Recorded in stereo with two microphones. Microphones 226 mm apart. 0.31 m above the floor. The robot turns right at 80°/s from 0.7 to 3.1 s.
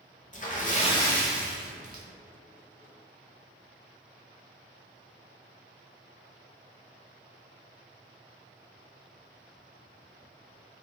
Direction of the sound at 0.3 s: 135° left.